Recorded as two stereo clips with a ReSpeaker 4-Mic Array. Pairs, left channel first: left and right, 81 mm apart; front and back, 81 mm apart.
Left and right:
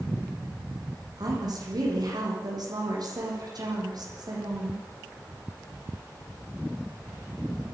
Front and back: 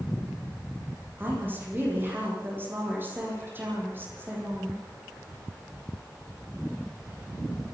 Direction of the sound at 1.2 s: 120° right.